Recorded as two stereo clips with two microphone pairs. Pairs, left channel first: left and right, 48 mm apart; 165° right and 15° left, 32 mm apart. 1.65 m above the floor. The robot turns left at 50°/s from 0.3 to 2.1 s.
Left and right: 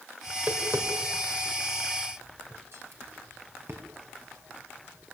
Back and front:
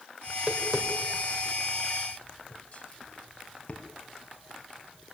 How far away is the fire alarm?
I don't hear a fire alarm.